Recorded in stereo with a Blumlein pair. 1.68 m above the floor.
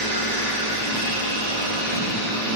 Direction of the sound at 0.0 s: 55° right.